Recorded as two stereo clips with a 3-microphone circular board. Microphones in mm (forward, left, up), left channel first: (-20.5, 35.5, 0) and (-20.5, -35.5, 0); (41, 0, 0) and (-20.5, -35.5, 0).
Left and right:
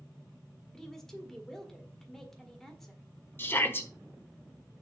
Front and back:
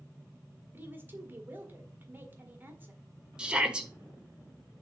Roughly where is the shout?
Behind left.